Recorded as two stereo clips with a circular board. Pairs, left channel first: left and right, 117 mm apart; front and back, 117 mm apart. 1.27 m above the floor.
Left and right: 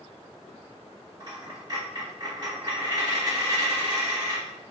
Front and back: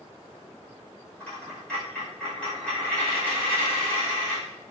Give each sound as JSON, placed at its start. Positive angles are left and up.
{"t": 1.2, "sound": "a dropped coin", "azimuth_deg": -75, "distance_m": 1.2}